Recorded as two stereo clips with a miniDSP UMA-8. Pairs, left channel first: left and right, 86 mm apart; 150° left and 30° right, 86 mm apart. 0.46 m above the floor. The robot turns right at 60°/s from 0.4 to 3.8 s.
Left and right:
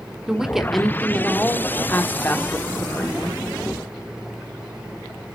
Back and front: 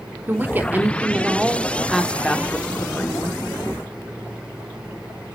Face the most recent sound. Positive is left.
turn(degrees=180)